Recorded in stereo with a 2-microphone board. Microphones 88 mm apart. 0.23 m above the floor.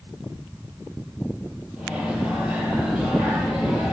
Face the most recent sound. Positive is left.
turn(degrees=-10)  # may be behind; listen again after turning